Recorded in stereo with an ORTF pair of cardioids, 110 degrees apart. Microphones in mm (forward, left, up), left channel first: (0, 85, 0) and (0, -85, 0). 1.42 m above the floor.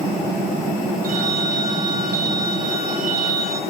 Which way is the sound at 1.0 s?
65° right.